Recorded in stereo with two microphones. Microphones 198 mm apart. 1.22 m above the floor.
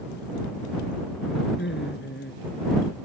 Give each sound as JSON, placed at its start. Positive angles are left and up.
{"t": 1.6, "sound": "laughter", "side_deg": 65}